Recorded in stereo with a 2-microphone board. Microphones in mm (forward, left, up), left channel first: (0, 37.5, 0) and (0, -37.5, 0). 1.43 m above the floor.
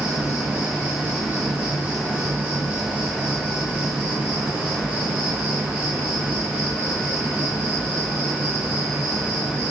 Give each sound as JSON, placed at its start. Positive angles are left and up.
{"t": 0.0, "sound": "an insect", "side_deg": -25, "distance_m": 0.7}